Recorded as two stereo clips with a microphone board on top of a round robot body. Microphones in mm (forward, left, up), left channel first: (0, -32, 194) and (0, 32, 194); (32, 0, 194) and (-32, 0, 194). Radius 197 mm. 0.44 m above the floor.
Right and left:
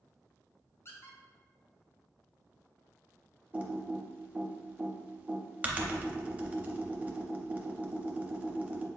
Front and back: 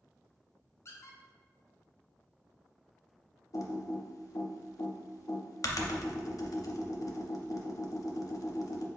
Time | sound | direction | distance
0.8 | a squeak | 45° right | 0.8 m
3.5 | typing on a keyboard | 25° left | 0.7 m